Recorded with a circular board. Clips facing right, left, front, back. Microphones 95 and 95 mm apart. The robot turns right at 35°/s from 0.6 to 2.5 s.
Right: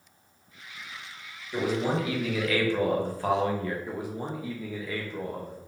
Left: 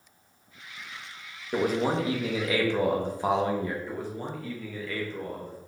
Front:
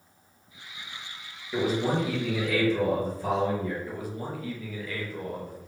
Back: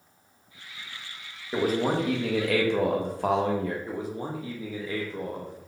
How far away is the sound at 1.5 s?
About 0.9 m.